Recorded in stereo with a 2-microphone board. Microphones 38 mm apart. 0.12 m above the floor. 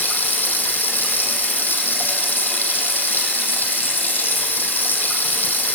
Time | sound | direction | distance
0.0 | running water | 65° left (ahead or behind) | 2.5 m